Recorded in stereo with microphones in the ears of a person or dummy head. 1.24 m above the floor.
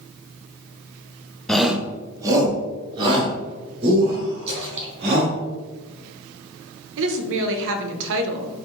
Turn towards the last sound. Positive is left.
turn(degrees=-65)  # may be behind; listen again after turning